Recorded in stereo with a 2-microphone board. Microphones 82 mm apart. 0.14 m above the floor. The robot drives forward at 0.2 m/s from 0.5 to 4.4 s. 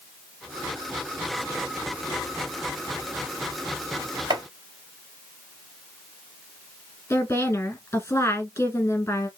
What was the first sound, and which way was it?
Chopping, 55° right (ahead or behind).